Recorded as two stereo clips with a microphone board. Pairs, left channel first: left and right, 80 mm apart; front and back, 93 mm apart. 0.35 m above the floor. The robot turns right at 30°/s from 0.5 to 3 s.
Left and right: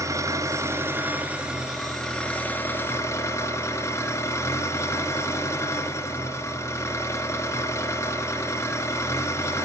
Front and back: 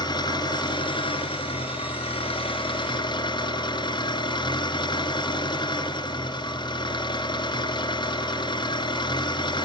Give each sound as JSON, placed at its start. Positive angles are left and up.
{"t": 0.0, "sound": "an engine running", "azimuth_deg": -40, "distance_m": 3.0}